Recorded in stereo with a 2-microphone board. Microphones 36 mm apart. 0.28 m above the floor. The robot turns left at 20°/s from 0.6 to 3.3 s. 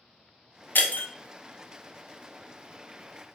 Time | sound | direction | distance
0.8 | breaking glass | 65° left (ahead or behind) | 0.6 m